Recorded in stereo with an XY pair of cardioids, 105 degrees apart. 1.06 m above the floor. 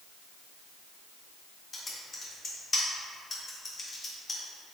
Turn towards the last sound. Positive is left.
turn(degrees=35)